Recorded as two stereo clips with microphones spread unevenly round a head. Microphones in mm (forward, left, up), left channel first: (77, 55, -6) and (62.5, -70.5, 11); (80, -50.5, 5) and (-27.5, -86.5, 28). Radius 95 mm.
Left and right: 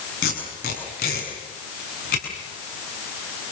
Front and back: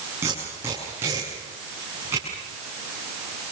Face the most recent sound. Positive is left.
turn(degrees=120)